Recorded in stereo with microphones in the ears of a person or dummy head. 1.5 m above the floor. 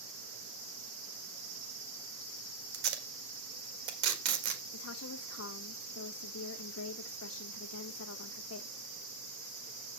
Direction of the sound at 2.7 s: 60° right (ahead or behind).